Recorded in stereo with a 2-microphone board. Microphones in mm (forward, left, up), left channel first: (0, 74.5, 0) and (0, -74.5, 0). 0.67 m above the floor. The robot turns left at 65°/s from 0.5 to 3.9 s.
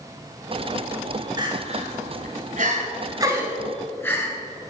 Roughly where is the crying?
Right.